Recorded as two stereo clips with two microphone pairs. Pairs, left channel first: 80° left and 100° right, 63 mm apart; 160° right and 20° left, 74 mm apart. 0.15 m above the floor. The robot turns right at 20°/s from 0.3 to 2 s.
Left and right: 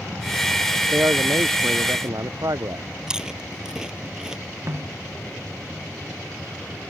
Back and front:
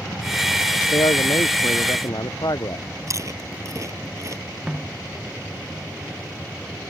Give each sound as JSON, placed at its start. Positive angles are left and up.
{"t": 0.9, "sound": "a man speaking", "azimuth_deg": -155}
{"t": 3.1, "sound": "chewing", "azimuth_deg": -25}
{"t": 4.7, "sound": "a snare drum", "azimuth_deg": -60}